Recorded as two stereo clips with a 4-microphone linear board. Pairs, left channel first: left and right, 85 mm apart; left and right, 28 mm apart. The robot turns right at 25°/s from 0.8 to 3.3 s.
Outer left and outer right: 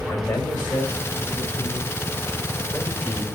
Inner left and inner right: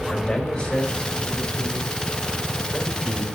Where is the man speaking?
150° left, 2.5 m; by 3.2 s 150° right, 2.5 m.